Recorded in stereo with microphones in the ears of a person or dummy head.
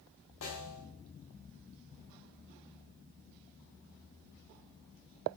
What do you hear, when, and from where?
0.4 s a snare drum: 80° left, 2.5 m